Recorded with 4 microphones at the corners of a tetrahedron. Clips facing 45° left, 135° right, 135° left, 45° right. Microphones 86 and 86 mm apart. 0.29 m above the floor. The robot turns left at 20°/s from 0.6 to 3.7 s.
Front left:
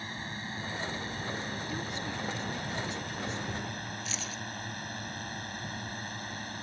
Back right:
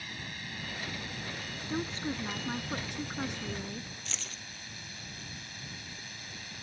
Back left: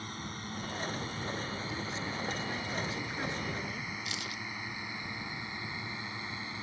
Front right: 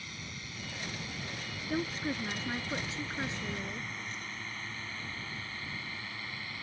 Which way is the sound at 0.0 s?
95° left.